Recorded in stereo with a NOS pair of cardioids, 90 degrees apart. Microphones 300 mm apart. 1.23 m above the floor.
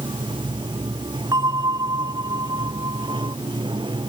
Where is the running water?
15° right.